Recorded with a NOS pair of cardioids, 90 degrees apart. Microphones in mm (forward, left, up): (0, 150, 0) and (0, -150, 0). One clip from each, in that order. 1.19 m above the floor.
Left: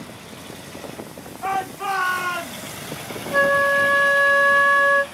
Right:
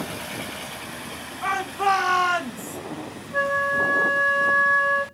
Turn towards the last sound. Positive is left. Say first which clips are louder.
# left 5 dB
turn(degrees=65)